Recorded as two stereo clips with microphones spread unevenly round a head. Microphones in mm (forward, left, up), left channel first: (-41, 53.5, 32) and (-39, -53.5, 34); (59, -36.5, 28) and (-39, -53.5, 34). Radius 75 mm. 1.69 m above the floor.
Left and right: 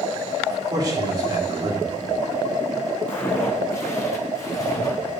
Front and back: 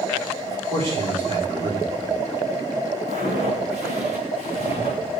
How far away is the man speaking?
About 6 m.